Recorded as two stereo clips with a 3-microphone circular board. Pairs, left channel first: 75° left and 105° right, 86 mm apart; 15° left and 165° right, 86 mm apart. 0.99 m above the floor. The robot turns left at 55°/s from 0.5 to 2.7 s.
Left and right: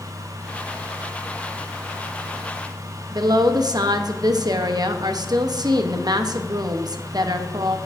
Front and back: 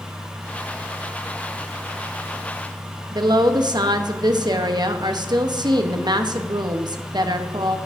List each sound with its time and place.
3.1 s a woman speaking: 140° right, 0.8 m